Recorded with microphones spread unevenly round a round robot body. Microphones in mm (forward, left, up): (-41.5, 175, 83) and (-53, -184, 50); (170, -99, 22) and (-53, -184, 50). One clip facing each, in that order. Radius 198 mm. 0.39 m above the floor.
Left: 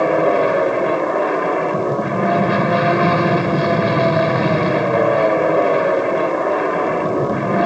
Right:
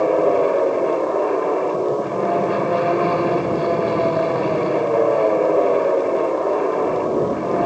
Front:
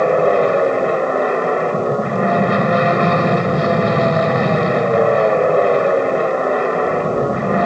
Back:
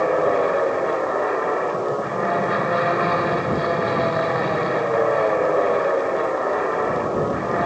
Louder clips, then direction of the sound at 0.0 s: Even, front 5 dB; 55° left.